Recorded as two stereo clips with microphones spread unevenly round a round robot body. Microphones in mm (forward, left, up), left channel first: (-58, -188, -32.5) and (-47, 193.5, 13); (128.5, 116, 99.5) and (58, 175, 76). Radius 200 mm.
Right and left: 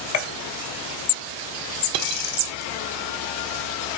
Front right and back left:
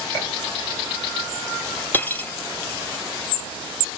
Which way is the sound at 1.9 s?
35° left.